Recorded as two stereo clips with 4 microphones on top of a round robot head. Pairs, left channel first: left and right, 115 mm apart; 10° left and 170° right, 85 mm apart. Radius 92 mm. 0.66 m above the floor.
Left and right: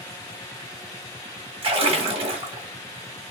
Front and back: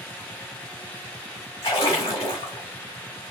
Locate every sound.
1.6 s a splash: 55° right, 1.5 m